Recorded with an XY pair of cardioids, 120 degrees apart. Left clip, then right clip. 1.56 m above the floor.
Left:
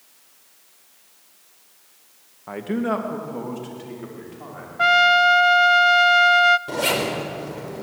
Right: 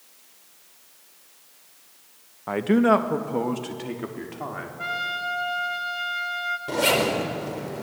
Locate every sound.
2.5 s a man speaking: 25° right, 1.3 m; by 4.7 s 40° right, 4 m
4.8 s a trumpet: 70° left, 0.5 m
6.7 s a zipper: 5° left, 4 m